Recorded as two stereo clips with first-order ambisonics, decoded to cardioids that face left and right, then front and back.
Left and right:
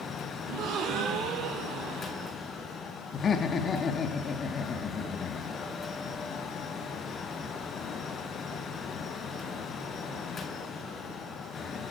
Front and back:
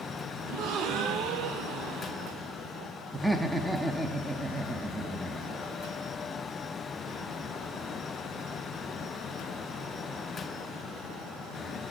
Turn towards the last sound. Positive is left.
turn(degrees=95)